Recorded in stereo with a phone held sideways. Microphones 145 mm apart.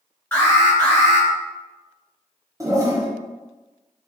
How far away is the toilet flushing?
About 0.6 m.